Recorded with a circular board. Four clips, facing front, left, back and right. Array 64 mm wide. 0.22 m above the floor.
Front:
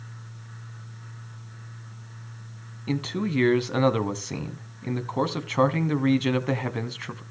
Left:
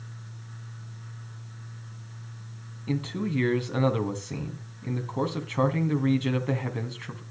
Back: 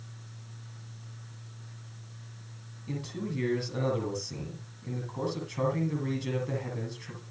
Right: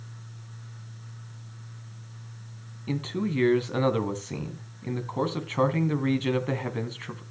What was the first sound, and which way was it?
A man speaking, 10° right.